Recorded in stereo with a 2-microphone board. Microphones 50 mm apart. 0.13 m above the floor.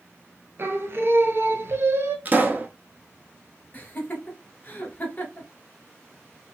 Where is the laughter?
35° left (ahead or behind), 1.5 m.